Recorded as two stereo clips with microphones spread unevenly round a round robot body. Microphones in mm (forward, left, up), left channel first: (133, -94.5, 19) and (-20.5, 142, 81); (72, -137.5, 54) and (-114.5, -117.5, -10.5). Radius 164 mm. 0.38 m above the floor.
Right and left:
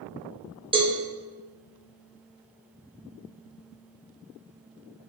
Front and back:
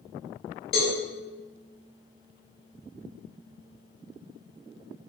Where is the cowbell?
45° left, 1.5 m.